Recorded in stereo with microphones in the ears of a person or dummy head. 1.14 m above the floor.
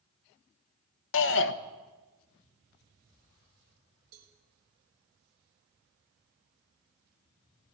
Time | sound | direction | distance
1.1 | a shout | 60° left (ahead or behind) | 1.3 m
4.1 | a cowbell | 55° right (ahead or behind) | 4.5 m